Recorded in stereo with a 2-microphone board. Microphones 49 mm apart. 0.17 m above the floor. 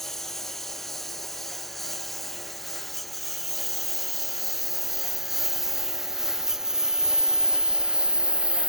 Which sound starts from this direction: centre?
A lawn mower, at 0.0 s.